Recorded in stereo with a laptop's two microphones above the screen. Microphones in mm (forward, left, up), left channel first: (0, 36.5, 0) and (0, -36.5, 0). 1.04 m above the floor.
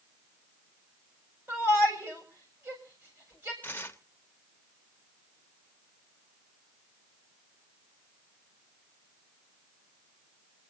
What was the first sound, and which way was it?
A shout, 35° right (ahead or behind).